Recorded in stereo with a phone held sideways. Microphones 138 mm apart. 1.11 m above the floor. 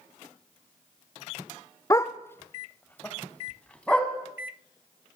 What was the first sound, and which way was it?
A dog barking, 25° left (ahead or behind).